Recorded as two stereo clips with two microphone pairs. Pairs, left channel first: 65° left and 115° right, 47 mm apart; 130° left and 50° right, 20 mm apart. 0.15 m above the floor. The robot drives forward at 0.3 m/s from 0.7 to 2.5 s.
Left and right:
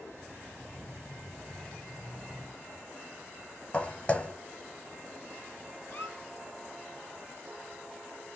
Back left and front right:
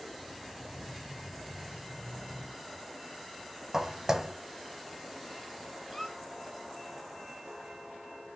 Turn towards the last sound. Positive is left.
turn(degrees=60)